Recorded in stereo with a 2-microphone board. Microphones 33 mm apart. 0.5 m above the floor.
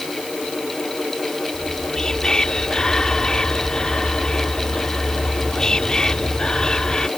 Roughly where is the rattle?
I don't hear a rattle.